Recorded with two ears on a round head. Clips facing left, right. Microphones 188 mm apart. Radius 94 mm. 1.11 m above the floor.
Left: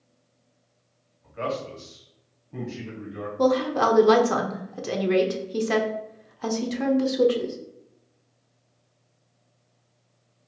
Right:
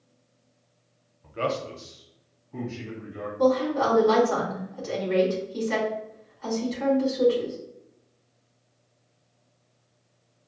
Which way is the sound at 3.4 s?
65° left (ahead or behind).